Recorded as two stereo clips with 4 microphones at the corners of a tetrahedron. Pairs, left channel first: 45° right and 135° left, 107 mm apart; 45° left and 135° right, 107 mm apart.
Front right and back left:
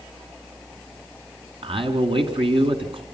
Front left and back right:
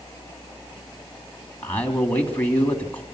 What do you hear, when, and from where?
1.6 s a man speaking: 115° left, 2.5 m